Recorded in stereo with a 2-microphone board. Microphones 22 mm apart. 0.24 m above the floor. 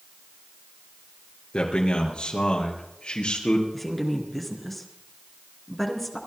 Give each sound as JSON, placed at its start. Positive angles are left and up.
{"t": 1.5, "sound": "a man speaking", "side_deg": 55, "distance_m": 4.5}
{"t": 3.7, "sound": "a woman speaking", "side_deg": 5, "distance_m": 3.5}